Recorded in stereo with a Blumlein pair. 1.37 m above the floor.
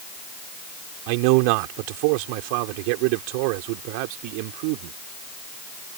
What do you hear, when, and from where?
1.1 s a man speaking: 45° right